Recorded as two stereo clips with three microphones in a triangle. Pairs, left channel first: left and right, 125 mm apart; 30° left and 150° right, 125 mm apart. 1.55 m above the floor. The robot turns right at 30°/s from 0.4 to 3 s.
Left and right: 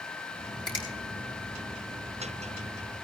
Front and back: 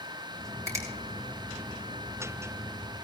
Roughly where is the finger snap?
Behind left.